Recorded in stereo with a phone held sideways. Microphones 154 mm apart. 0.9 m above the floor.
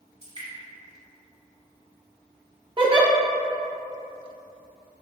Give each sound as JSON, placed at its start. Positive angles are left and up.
{"t": 0.2, "sound": "dripping", "side_deg": -35, "distance_m": 1.4}
{"t": 2.8, "sound": "a giggle", "side_deg": -35, "distance_m": 0.6}